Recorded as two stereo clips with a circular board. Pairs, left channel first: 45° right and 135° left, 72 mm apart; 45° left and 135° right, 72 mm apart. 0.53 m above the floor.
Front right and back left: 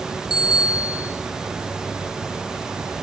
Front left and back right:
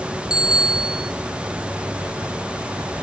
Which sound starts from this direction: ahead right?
A bicycle bell, at 0.3 s.